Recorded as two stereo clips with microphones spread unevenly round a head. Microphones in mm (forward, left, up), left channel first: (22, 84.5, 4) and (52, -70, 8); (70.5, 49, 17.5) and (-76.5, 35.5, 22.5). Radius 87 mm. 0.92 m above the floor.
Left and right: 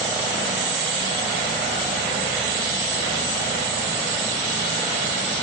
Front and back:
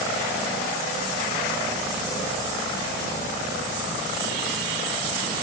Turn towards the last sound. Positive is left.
No sound to turn to.